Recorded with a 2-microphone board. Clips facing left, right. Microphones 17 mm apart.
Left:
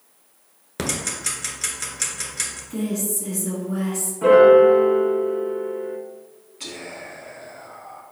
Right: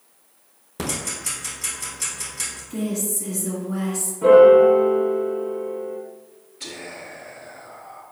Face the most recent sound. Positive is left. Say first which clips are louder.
# left 1 dB
turn(degrees=30)  # may be behind; listen again after turning